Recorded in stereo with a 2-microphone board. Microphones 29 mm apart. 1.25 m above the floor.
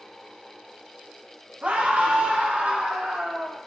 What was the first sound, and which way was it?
A scream, 80° right.